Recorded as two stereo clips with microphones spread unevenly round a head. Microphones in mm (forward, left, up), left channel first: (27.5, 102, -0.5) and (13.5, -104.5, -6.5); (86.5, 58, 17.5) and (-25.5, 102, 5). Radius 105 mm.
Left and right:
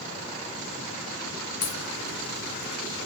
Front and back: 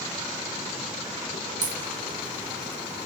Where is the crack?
145° left, 2.0 m.